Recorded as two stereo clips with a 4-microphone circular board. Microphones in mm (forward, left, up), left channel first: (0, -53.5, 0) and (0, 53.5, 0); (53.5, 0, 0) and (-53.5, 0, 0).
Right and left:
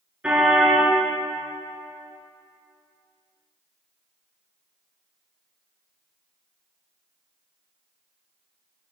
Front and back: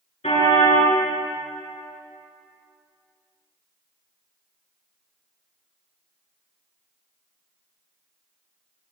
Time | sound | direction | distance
0.2 | a car horn | 10° left | 7.5 m